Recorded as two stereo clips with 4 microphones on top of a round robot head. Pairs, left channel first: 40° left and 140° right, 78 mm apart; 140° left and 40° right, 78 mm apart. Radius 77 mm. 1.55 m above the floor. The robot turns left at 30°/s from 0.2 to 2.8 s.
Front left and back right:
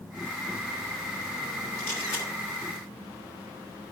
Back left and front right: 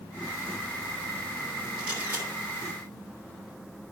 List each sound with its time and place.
1.8 s a camera shutter: 35° left, 2.5 m; by 2.3 s 20° left, 2.5 m